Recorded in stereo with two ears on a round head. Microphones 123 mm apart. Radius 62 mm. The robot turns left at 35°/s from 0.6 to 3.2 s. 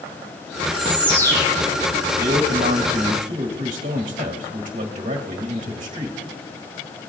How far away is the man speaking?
About 1.8 m.